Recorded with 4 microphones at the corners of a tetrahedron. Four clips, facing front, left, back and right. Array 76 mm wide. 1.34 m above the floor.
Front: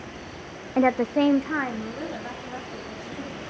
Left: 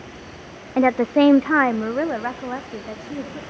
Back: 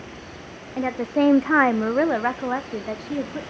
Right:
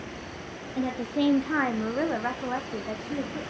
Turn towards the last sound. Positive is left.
turn(degrees=175)